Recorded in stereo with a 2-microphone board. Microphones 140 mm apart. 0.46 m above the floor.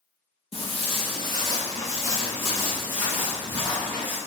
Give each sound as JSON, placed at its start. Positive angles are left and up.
{"t": 0.5, "sound": "footsteps", "side_deg": 50, "distance_m": 0.7}